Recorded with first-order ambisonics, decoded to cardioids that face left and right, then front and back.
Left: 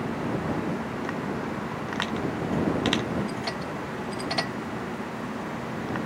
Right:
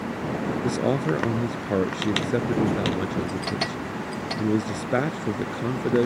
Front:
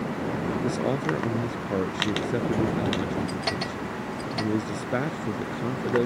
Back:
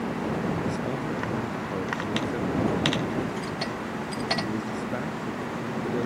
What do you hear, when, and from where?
0.6 s a man speaking: 70° right